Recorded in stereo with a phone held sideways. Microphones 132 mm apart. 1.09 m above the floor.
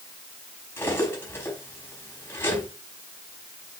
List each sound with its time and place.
0.8 s cutlery clinking: 15° left (ahead or behind), 5 m